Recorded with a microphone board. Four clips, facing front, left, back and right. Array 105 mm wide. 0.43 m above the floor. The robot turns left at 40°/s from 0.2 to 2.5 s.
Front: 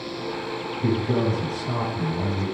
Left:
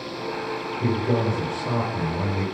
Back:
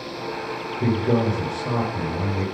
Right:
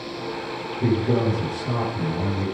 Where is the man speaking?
170° right, 7 m; by 2.5 s 120° left, 7 m.